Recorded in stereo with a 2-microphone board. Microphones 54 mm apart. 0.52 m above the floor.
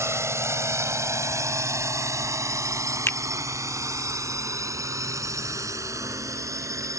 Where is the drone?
60° right (ahead or behind); by 7.0 s 75° right (ahead or behind).